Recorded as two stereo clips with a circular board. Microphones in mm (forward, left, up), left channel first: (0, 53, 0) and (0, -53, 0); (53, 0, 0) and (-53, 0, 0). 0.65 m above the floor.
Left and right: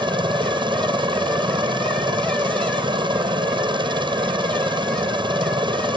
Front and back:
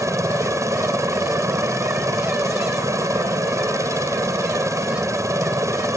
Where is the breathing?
No breathing in this recording.